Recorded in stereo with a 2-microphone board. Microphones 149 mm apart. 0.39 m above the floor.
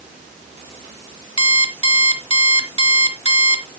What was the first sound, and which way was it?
An alarm clock, 35° left (ahead or behind).